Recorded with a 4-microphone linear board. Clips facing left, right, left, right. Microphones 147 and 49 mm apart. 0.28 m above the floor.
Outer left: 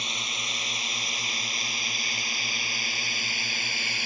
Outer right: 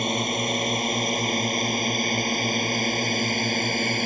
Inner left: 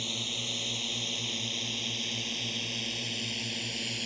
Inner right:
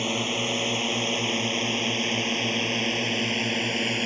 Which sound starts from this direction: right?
A drone, at 0.0 s.